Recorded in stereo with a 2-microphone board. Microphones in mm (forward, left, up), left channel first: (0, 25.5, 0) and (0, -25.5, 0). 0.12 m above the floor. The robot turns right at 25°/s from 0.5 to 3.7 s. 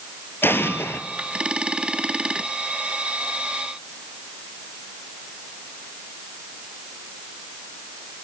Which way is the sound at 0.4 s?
50° left (ahead or behind).